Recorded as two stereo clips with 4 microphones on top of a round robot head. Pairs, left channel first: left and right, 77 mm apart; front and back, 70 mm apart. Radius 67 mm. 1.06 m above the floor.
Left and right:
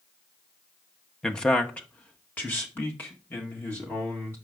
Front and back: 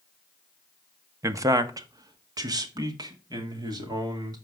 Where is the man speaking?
170° left, 0.8 m; by 4.3 s 155° left, 3 m.